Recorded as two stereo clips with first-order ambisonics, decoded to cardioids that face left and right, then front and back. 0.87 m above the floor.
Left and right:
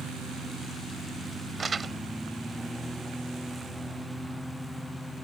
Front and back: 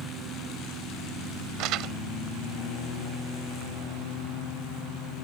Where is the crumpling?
160° right.